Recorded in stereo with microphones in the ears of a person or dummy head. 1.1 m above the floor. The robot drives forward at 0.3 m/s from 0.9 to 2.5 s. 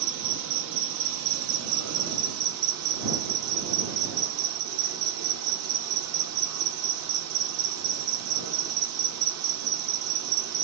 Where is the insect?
65° right (ahead or behind), 0.7 m; by 10.7 s 75° right (ahead or behind), 0.7 m.